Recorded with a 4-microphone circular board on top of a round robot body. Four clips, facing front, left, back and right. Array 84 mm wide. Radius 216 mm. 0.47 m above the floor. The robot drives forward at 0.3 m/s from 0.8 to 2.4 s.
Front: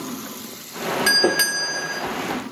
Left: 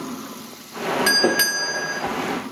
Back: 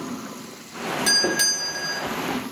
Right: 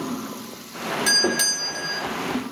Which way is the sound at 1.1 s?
45° left.